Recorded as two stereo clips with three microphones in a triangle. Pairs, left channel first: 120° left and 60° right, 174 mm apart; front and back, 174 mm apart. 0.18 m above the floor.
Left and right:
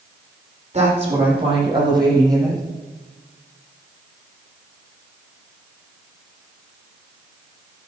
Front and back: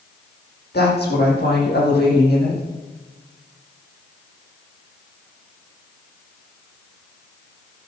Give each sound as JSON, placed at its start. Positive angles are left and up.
{"t": 0.7, "sound": "a woman speaking", "azimuth_deg": -10, "distance_m": 6.5}